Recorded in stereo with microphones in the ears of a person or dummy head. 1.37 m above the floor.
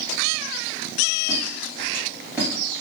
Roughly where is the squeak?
Centre.